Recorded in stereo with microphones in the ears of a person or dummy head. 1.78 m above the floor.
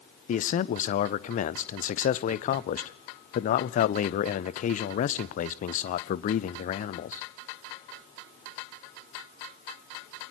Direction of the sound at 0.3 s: 35° left (ahead or behind).